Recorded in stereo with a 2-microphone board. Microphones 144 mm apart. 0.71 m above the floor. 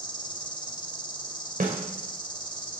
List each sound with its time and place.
0.0 s an insect: 30° left (ahead or behind), 1.2 m
1.6 s a snare drum: 80° right, 1.9 m